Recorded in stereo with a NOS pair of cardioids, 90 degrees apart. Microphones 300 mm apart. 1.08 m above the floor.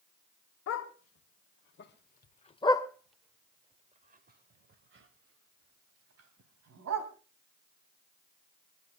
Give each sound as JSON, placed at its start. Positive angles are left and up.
{"t": 0.7, "sound": "a dog barking", "azimuth_deg": 60, "distance_m": 2.0}